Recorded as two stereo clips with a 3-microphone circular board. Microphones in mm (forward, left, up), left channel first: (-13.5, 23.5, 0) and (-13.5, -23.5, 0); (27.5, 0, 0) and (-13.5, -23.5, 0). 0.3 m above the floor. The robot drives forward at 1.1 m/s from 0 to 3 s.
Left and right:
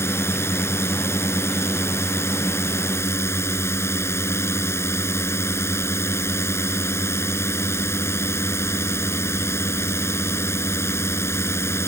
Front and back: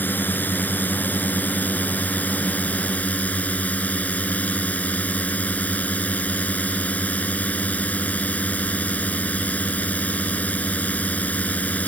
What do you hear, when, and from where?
0.0 s a drone: 75° left; by 11.9 s 90° left